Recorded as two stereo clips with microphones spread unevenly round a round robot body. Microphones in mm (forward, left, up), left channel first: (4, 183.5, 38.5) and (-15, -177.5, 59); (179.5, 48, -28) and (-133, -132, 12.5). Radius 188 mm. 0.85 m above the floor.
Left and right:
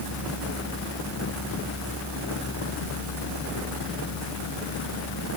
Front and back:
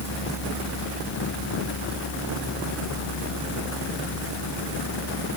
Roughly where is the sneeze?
No sneeze in this recording.